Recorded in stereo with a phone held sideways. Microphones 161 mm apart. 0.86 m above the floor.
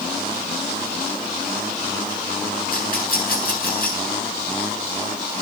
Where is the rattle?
65° left (ahead or behind), 8 m.